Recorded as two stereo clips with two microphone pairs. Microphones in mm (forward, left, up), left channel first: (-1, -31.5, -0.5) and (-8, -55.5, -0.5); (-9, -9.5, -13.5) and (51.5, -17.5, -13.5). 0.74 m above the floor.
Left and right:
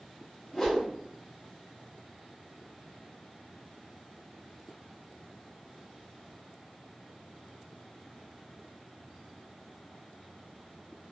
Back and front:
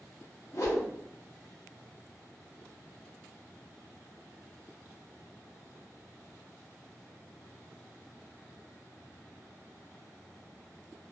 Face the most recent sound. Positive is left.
turn(degrees=140)